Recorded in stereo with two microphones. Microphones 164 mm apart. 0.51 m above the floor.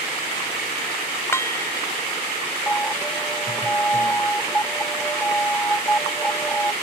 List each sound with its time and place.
1.3 s dishes clattering: 15° left (ahead or behind)
2.7 s an alarm: 10° left (ahead or behind)